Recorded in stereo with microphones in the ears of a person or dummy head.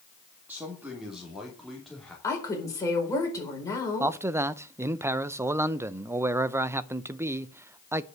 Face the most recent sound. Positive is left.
turn(degrees=-20)  # may be behind; listen again after turning